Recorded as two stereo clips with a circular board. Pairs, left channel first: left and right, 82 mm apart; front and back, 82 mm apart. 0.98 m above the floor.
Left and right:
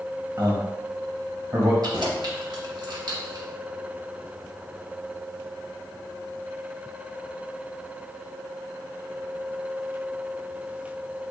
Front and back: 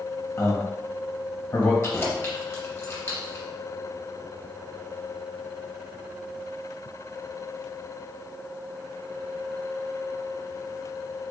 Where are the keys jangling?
60° right, 0.8 m.